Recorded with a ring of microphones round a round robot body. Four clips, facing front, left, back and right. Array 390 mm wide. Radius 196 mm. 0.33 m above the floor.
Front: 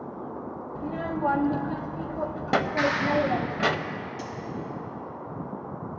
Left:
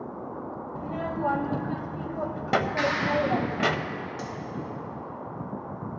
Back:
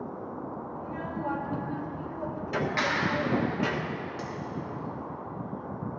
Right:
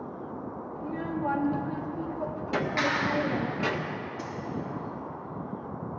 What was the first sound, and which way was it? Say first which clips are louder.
A child speaking: left 2 dB, front 8 dB; 40° left.